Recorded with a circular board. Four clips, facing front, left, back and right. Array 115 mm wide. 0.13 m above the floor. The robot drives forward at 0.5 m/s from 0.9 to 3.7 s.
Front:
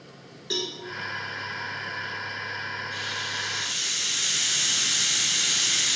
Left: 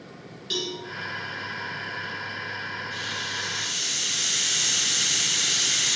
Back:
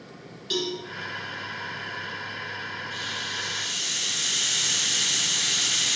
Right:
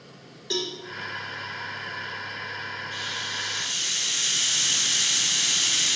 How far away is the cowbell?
About 0.7 m.